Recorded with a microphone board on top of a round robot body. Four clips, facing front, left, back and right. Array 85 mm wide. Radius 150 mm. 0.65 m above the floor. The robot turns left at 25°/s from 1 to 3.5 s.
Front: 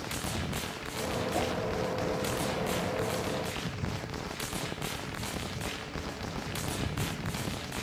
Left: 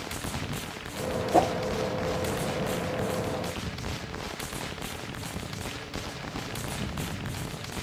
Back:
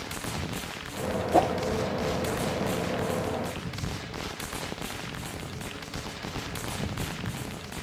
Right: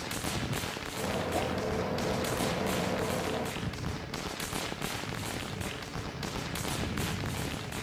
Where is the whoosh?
140° left; by 1.5 s 135° left.